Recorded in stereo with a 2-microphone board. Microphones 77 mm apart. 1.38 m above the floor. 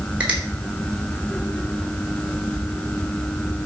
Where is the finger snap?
15° right (ahead or behind), 3.5 m.